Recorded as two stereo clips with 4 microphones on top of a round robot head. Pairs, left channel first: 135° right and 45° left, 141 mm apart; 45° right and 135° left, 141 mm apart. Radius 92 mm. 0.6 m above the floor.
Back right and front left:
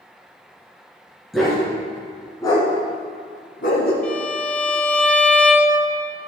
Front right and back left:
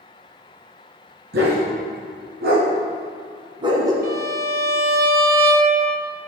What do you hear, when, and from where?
1.3 s a dog barking: 135° left, 2 m; by 3.9 s 155° right, 1.6 m
4.0 s a violin: 145° left, 1.1 m